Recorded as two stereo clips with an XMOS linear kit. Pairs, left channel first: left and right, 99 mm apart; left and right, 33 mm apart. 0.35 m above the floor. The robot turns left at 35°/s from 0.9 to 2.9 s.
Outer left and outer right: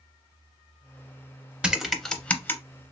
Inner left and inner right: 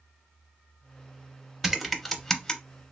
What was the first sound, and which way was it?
Typing on a keyboard, 10° right (ahead or behind).